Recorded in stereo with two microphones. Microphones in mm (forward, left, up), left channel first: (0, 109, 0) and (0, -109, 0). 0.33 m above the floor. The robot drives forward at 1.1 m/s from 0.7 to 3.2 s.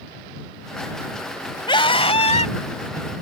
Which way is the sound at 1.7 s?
25° left (ahead or behind).